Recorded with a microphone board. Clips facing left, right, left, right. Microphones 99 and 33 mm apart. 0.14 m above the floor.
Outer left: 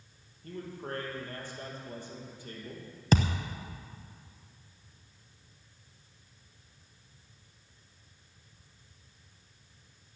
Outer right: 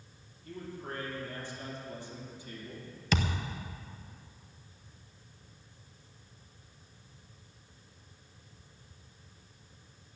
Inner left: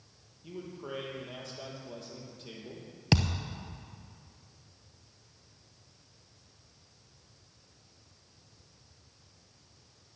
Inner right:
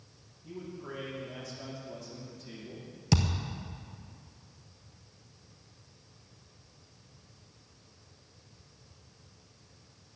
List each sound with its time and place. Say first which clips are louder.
0.4 s a man speaking: outer left 2 dB, inner left 1 dB; 50° left (ahead or behind), 4.5 m
3.1 s a thud: outer left 4 dB, inner left 1 dB; 40° left (ahead or behind), 1.0 m